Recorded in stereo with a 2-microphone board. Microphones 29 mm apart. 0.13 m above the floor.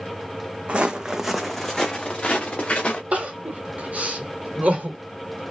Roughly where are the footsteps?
Right.